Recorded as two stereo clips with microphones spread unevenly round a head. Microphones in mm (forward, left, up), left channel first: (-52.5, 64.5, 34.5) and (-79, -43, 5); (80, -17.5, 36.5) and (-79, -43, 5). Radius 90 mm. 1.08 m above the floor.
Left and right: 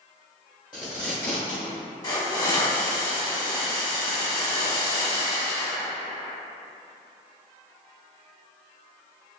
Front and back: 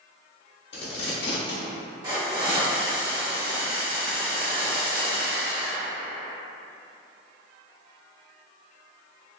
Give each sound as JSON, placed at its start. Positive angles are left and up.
{"t": 0.7, "sound": "tape being pulled", "azimuth_deg": 20, "distance_m": 1.3}
{"t": 2.0, "sound": "a hiss", "azimuth_deg": 115, "distance_m": 1.3}